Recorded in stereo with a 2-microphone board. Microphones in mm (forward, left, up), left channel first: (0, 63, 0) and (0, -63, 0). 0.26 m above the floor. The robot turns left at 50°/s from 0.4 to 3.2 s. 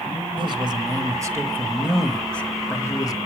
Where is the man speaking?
95° right, 1.1 m; by 3.2 s 125° left, 1.1 m.